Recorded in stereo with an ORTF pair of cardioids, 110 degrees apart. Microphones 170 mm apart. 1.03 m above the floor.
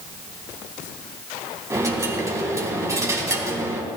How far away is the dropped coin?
About 2 m.